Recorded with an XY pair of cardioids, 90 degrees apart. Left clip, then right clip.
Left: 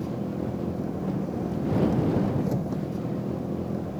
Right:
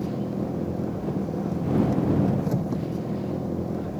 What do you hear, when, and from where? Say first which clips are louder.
0.0 s an engine running: right 2 dB; 20° right